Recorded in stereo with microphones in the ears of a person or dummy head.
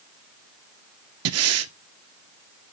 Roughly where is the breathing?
Right.